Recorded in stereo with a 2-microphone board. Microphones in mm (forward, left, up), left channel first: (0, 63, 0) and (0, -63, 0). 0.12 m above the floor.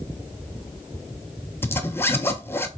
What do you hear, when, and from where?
1.6 s a zipper: 20° left (ahead or behind), 0.5 m